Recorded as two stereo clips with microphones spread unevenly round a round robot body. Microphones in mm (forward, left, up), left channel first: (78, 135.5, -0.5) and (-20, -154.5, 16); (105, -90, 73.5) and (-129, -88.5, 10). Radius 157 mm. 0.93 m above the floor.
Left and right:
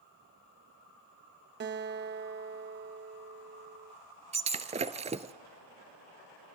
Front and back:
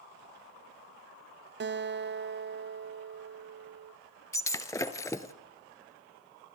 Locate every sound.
1.6 s a guitar: 165° right, 0.8 m
4.3 s breaking glass: 50° right, 1.1 m